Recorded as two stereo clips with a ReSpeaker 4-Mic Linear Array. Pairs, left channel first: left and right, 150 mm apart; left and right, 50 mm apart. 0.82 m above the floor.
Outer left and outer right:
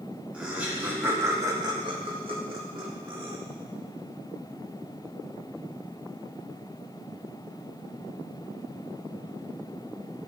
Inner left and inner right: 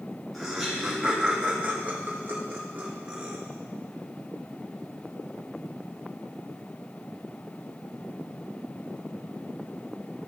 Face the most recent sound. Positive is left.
turn(degrees=-30)  # may be behind; listen again after turning